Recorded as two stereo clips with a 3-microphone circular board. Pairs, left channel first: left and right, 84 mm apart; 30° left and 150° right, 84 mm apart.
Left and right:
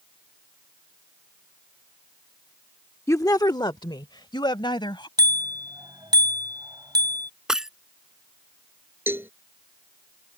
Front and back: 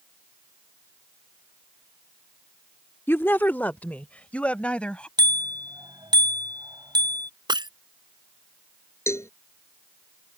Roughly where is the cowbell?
Ahead right.